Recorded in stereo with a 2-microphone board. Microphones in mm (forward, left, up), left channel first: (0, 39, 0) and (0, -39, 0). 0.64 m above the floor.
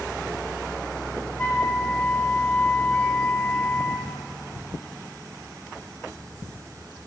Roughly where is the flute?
Left.